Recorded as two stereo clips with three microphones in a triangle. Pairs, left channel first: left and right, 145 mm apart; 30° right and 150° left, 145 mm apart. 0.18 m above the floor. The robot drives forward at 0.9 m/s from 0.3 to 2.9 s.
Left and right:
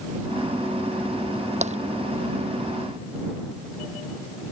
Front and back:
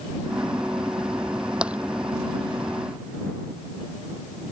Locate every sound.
1.6 s tapping: 125° right; by 1.8 s 130° right